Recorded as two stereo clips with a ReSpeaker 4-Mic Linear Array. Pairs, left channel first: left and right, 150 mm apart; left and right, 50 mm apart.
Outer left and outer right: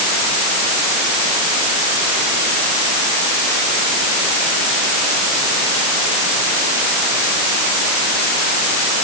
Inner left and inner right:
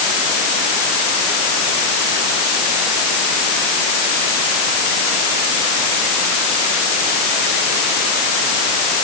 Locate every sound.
Only background noise.